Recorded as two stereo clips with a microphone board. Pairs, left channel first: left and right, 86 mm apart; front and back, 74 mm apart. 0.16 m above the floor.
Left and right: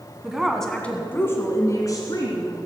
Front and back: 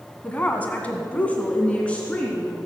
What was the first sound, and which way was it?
A woman speaking, 25° right.